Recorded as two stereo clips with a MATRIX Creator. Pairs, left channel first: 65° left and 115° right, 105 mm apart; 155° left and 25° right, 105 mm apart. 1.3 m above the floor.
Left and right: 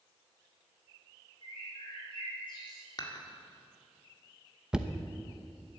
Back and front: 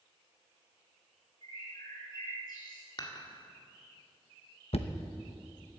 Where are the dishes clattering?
115° left, 1.9 m.